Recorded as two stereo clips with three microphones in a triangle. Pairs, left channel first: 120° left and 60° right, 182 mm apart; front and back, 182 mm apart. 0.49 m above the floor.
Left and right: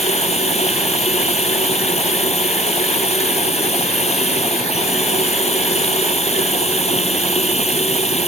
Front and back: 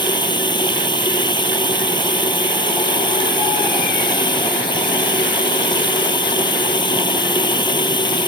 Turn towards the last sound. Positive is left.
turn(degrees=65)